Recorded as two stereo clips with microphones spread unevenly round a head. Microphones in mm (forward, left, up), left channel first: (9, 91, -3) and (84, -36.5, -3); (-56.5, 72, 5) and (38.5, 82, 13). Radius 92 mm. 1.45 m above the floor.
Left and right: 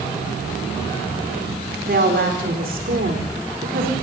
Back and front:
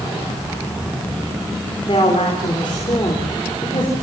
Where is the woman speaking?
110° right, 4.5 m.